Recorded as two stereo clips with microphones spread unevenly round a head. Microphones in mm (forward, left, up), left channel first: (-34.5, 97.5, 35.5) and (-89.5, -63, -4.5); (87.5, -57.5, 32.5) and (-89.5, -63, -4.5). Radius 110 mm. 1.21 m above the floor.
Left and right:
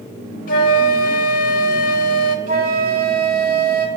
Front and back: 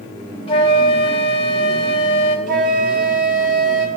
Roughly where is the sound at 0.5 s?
Ahead left.